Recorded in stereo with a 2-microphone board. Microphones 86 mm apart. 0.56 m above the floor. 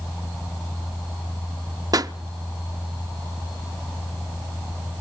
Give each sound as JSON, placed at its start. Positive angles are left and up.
{"t": 1.9, "sound": "a pop", "side_deg": -45, "distance_m": 0.5}